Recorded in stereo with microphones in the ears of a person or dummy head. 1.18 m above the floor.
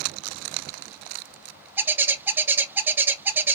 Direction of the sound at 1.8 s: 10° right (ahead or behind).